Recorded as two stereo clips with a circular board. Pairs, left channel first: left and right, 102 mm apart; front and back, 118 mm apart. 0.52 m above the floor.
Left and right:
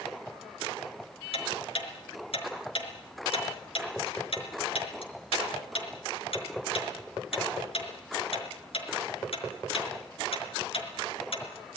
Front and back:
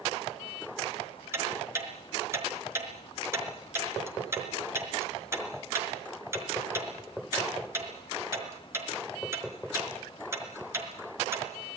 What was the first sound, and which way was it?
Ticking, 115° left.